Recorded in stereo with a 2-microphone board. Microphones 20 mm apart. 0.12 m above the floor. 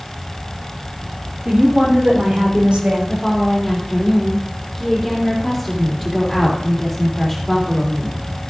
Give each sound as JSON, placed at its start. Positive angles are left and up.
{"t": 1.4, "sound": "a woman speaking", "side_deg": -70, "distance_m": 4.0}
{"t": 3.1, "sound": "a woman speaking", "side_deg": 10, "distance_m": 3.5}